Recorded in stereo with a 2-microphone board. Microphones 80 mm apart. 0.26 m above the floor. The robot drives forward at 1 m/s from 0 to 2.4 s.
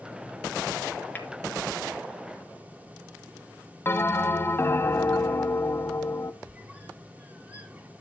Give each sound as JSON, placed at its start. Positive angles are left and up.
{"t": 1.1, "sound": "tapping", "side_deg": 20, "distance_m": 2.5}
{"t": 3.9, "sound": "a bell", "side_deg": 30, "distance_m": 0.6}
{"t": 6.4, "sound": "a squeak", "side_deg": -20, "distance_m": 1.4}